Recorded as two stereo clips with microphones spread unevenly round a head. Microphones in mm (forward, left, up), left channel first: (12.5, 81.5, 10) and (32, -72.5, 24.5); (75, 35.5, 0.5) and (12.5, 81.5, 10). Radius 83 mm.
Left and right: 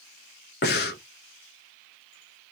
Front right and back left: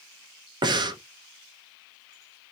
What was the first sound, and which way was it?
Breathing, 130° left.